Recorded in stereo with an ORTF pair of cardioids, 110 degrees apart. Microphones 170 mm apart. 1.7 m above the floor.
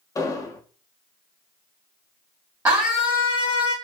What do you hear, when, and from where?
0.1 s an explosion: 20° left, 0.6 m
2.6 s a scream: 20° right, 1.0 m